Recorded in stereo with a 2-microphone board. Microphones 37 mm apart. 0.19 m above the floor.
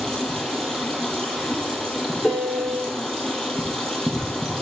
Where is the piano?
30° left (ahead or behind), 1.3 m.